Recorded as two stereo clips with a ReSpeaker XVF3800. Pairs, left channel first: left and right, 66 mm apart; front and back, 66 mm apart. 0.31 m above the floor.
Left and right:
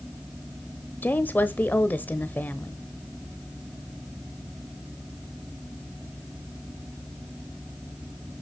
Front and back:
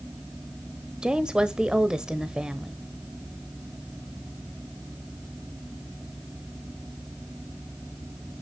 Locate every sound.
1.0 s a woman speaking: 115° left, 1.0 m